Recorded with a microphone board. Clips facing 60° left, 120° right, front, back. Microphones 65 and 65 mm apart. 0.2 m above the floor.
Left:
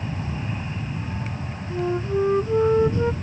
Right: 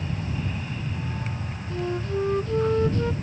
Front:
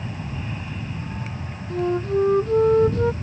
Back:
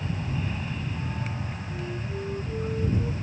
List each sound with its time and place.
0.0 s an aircraft: 70° left
1.7 s a flute: 10° right